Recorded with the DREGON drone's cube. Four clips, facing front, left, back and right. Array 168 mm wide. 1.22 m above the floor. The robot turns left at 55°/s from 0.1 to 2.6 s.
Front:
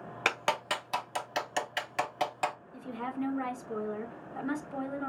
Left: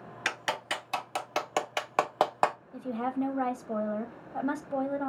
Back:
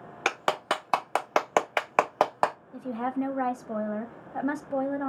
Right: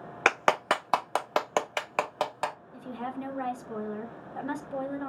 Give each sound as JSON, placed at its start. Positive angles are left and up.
{"t": 0.2, "sound": "a clap", "azimuth_deg": -95, "distance_m": 0.6}
{"t": 2.7, "sound": "a woman speaking", "azimuth_deg": 145, "distance_m": 1.4}